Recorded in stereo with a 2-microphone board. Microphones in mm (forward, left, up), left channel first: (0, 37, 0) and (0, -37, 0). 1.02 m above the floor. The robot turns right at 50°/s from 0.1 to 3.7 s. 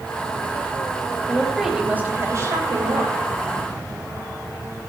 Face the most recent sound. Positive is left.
turn(degrees=-70)